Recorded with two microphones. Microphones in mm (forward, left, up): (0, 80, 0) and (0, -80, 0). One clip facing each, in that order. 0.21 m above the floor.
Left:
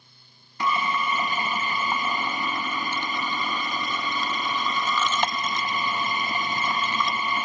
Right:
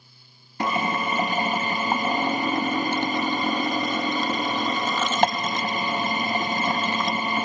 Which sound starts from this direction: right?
A drill, at 0.6 s.